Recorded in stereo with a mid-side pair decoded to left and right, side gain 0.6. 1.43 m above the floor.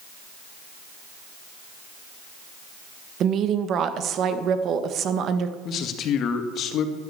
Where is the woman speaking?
50° right, 1.6 m.